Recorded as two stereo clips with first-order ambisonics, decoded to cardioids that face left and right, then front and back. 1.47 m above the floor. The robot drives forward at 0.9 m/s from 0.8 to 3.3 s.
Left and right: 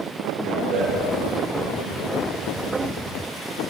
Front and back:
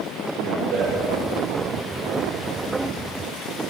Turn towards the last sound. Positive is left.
turn(degrees=-135)